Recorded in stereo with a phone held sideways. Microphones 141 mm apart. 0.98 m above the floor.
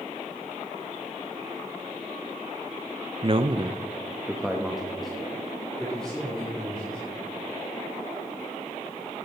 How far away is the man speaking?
About 0.5 m.